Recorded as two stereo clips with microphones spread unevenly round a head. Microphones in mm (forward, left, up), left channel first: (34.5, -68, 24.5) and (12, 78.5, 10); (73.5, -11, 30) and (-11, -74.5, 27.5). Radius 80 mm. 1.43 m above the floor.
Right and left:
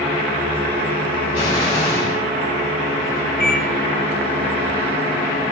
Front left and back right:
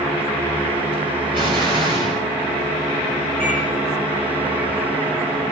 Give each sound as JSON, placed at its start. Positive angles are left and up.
{"t": 1.3, "sound": "an explosion", "azimuth_deg": -125, "distance_m": 1.5}
{"t": 3.4, "sound": "a microwave", "azimuth_deg": -165, "distance_m": 4.0}